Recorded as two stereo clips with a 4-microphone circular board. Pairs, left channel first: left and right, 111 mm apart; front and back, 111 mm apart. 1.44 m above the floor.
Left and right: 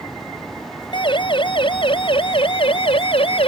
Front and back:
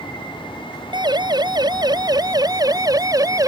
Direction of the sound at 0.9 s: 130° left.